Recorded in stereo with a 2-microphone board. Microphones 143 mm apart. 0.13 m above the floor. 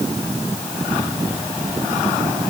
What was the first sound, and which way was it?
Only background noise.